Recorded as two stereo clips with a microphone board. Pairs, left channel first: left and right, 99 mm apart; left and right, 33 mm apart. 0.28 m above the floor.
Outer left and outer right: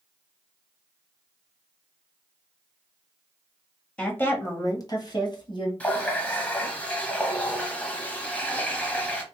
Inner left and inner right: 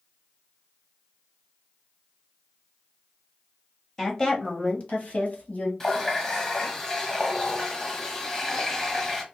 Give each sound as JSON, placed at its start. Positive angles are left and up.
{"t": 4.0, "sound": "a woman speaking", "side_deg": 10, "distance_m": 1.0}
{"t": 5.8, "sound": "a running tap", "side_deg": 15, "distance_m": 1.0}